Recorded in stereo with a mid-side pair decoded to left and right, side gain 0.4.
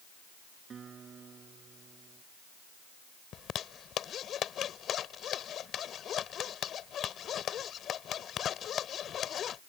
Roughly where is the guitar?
Ahead right.